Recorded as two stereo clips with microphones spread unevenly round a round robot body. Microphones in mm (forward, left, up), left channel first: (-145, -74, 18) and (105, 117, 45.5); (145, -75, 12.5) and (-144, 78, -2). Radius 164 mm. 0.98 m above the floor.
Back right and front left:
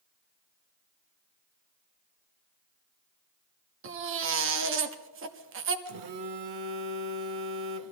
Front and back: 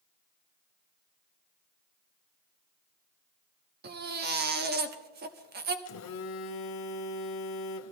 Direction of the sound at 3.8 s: 90° left.